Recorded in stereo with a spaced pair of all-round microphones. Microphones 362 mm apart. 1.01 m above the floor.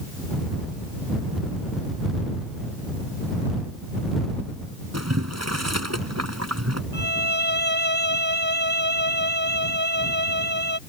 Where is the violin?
80° right.